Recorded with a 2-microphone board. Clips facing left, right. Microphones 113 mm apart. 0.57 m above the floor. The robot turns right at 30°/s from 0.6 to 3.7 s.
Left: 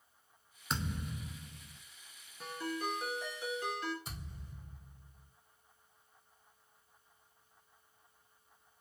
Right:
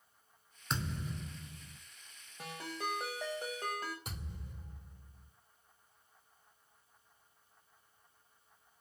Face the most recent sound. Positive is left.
turn(degrees=-65)  # may be behind; listen again after turning